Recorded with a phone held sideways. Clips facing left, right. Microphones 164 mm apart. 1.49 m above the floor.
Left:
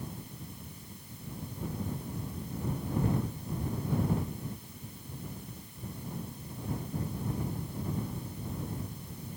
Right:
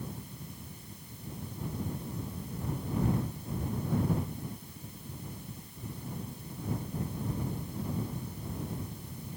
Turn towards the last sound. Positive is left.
No sound to turn to.